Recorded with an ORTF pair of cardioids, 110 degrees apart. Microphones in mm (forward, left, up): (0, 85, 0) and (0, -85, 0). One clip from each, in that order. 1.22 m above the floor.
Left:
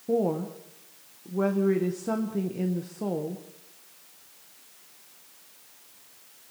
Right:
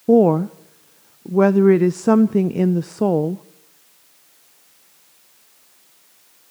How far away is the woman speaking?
About 0.6 m.